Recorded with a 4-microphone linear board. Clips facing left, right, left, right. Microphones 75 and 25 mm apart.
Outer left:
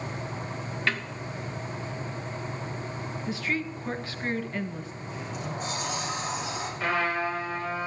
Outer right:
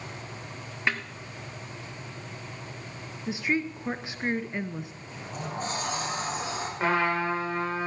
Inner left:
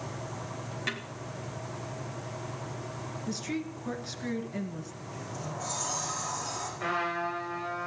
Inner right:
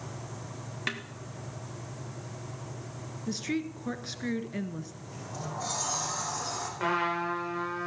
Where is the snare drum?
20° right (ahead or behind), 2 m.